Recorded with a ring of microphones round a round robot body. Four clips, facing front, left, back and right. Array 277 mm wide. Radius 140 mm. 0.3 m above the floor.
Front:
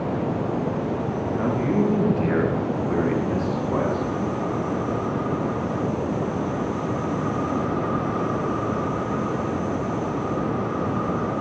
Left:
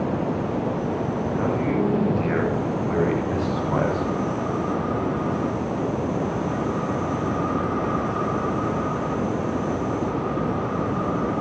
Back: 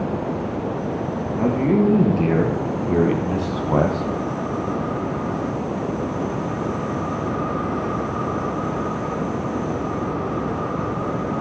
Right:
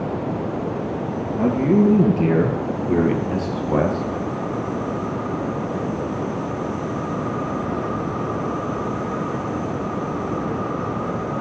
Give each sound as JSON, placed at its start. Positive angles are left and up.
{"t": 1.3, "sound": "a man speaking", "azimuth_deg": -130, "distance_m": 4.5}